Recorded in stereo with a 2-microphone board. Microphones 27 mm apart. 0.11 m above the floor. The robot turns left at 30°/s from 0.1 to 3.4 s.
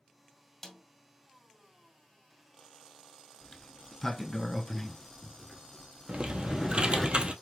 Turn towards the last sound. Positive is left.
turn(degrees=-45)  # may be behind; listen again after turning